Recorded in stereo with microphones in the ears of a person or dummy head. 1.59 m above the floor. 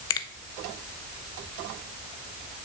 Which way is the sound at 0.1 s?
25° left (ahead or behind).